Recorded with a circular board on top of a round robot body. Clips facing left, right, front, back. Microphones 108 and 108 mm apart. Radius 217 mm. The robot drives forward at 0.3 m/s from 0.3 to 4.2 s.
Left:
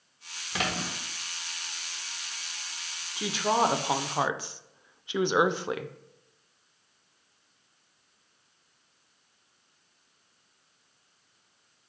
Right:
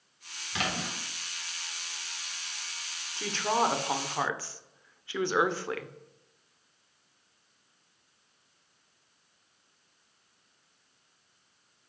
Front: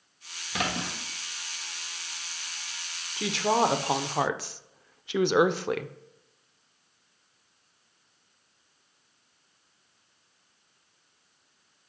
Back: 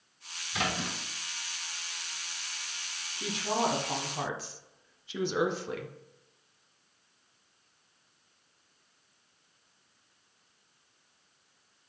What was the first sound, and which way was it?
A splash, 35° left.